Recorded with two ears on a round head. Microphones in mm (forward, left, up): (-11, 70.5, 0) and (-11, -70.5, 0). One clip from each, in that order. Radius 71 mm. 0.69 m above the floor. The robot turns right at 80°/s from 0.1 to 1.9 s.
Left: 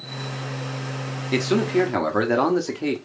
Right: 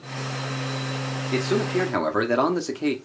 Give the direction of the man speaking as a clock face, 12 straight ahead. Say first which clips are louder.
Left 3 dB; 7 o'clock.